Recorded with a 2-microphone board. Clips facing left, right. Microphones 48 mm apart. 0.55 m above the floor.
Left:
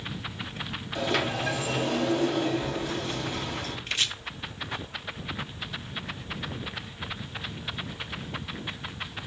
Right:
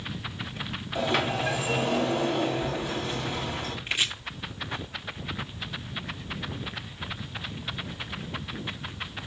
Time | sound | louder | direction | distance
0.9 | a sliding door | right 1 dB | 10° right (ahead or behind) | 3 m
3.9 | chopping | right 2 dB | 15° right (ahead or behind) | 0.9 m